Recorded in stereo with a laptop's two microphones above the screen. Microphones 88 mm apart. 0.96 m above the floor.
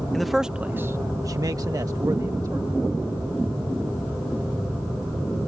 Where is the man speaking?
5° left (ahead or behind); by 2.7 s 40° right (ahead or behind).